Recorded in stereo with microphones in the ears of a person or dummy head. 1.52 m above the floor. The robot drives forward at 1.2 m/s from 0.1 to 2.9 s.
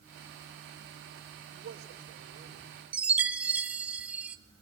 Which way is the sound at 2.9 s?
10° right (ahead or behind).